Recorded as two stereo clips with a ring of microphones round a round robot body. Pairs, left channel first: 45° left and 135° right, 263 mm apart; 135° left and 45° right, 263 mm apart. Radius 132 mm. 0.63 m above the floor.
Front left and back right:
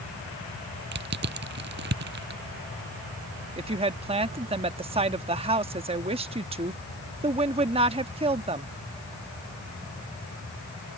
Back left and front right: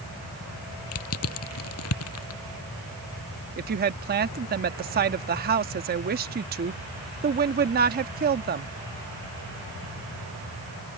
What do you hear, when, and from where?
0.9 s crushing: 170° left
3.6 s a woman speaking: 75° right